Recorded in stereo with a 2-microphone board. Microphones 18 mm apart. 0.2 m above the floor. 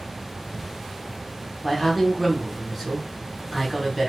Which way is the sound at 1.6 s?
5° right (ahead or behind).